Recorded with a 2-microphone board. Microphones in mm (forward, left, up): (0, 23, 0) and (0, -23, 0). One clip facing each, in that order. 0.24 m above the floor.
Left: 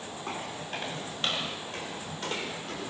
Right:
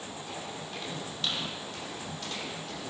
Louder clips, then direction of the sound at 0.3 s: Left 6 dB; 45° left (ahead or behind).